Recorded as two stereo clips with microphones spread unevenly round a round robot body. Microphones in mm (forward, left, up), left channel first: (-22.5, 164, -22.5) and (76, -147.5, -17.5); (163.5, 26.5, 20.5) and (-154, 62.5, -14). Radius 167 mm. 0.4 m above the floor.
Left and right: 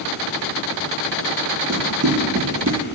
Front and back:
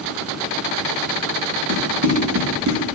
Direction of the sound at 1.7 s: 125° right.